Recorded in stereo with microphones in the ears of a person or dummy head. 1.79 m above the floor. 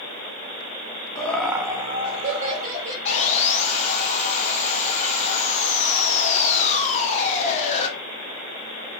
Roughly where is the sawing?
Left.